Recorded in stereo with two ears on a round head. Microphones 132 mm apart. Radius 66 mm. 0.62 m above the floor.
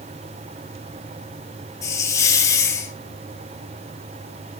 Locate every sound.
1.8 s a hiss: 20° left (ahead or behind), 2.5 m